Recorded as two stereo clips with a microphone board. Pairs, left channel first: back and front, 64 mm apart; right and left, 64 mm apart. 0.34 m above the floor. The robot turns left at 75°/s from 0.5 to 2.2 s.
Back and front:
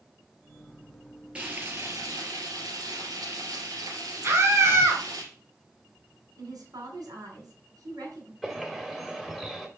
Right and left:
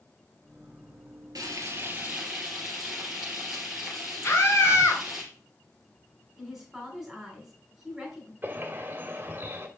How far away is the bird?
About 1.5 m.